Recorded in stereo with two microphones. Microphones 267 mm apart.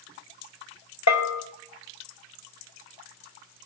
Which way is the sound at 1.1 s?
80° left.